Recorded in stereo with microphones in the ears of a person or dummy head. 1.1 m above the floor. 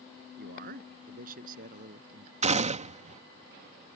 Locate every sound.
0.4 s a man speaking: 60° right (ahead or behind); by 2.3 s 50° right (ahead or behind)
2.4 s a gunshot: 30° right (ahead or behind)